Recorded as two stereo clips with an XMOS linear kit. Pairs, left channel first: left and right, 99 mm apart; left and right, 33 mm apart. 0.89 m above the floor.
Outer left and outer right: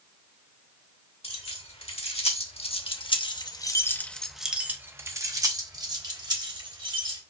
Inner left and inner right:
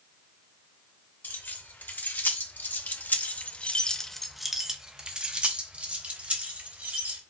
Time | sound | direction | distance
1.2 | keys jangling | 90° left | 1.5 m